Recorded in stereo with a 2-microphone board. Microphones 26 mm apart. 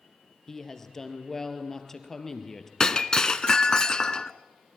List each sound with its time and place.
0.5 s a woman speaking: 20° left (ahead or behind), 3 m
2.8 s breaking glass: 20° left (ahead or behind), 0.9 m